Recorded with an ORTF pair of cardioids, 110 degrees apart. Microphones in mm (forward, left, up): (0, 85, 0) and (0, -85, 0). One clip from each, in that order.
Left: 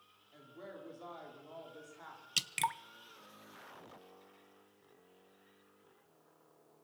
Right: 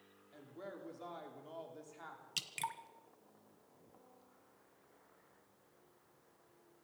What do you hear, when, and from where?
0.3 s a woman speaking: 5° right, 5 m
2.4 s dripping: 35° left, 0.7 m